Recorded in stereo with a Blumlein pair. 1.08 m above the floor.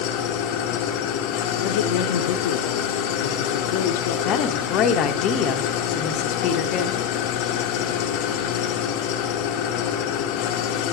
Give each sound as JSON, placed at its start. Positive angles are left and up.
{"t": 0.0, "sound": "an engine running", "azimuth_deg": 40, "distance_m": 0.7}
{"t": 1.6, "sound": "a man speaking", "azimuth_deg": 50, "distance_m": 0.7}
{"t": 4.2, "sound": "a woman speaking", "azimuth_deg": 35, "distance_m": 0.7}